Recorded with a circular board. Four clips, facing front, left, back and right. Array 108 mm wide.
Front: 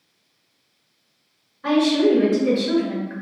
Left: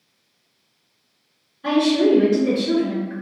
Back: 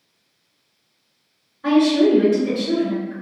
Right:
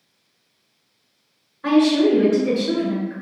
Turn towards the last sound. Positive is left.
turn(degrees=0)